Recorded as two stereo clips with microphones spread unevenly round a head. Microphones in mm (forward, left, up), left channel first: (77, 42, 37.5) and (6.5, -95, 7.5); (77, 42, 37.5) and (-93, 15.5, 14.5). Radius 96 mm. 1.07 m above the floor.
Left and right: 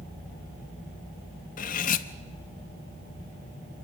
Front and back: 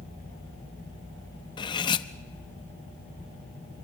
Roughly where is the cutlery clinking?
Ahead left.